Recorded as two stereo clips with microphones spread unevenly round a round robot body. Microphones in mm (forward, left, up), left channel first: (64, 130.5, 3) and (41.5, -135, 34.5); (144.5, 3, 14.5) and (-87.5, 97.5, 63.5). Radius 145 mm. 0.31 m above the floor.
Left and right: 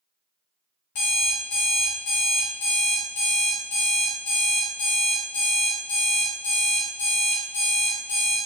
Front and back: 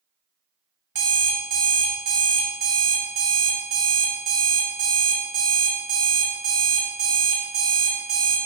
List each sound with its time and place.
0.9 s an alarm clock: 110° left, 1.1 m